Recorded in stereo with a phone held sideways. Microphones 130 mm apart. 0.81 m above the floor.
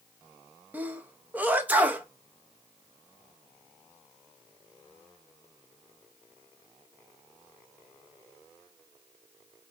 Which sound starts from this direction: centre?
A sneeze, at 0.7 s.